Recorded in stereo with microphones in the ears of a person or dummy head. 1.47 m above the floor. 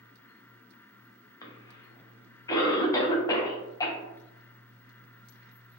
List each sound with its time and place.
1.4 s a cough: 25° left (ahead or behind), 0.6 m